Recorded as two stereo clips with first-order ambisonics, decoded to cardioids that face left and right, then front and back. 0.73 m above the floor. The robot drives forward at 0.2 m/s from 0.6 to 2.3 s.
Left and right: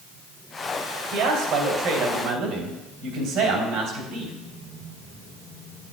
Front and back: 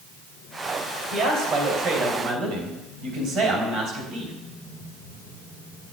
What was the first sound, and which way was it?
A man speaking, 140° right.